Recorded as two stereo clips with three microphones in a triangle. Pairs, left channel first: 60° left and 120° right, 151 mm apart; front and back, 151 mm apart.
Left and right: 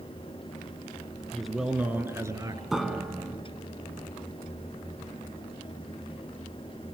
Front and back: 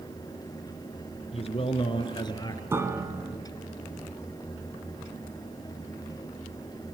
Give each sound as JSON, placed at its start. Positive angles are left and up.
{"t": 1.3, "sound": "a man speaking", "azimuth_deg": -25, "distance_m": 2.0}
{"t": 2.7, "sound": "a piano", "azimuth_deg": 155, "distance_m": 1.7}